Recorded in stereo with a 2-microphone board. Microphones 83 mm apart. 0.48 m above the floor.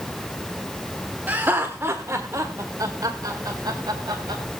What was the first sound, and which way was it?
Laughter, 20° right (ahead or behind).